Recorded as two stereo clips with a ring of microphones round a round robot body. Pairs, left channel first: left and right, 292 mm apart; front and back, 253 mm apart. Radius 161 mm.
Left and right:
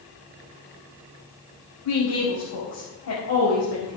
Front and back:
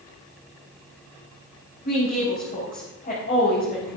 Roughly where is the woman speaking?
Ahead left.